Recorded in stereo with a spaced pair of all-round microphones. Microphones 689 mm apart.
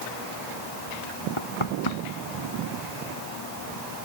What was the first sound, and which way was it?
Knocking, 45° left (ahead or behind).